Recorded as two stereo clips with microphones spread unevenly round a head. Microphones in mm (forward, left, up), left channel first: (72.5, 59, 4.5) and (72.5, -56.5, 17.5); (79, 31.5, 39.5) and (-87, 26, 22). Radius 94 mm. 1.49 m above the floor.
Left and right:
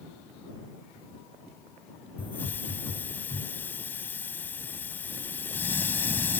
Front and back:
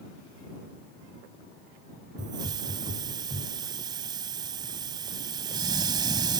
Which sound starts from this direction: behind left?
A hiss, at 2.2 s.